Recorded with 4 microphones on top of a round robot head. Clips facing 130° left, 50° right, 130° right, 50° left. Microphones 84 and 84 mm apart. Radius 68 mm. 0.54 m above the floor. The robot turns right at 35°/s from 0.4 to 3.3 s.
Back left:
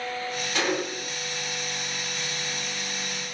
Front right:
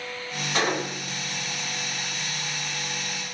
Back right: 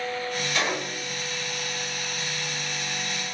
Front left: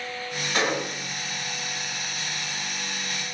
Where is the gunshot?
5° right, 4 m; by 1.2 s 15° left, 4 m.